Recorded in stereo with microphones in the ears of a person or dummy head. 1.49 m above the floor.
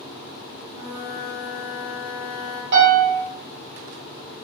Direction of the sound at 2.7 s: 70° right (ahead or behind).